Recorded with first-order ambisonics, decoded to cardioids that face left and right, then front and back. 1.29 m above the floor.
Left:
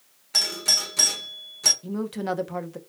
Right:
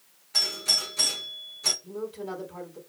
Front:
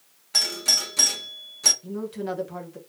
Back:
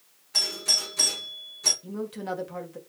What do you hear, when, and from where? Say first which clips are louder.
0.3 s a doorbell: left 3 dB, front 3 dB; 50° left, 1.0 m
1.8 s a woman speaking: left 5 dB, front 2 dB; 95° left, 0.8 m